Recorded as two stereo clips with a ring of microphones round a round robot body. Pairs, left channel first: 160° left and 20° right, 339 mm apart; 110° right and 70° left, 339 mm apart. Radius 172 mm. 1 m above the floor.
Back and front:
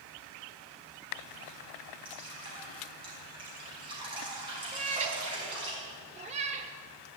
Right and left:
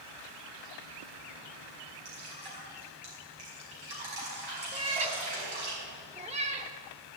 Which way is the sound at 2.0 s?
55° left.